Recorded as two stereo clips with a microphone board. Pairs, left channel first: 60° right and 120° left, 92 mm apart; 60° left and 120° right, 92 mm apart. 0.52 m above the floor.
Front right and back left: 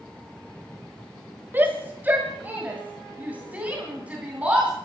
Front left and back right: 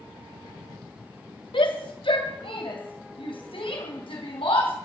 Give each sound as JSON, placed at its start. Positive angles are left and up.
{"t": 1.5, "sound": "a shout", "azimuth_deg": 55, "distance_m": 1.8}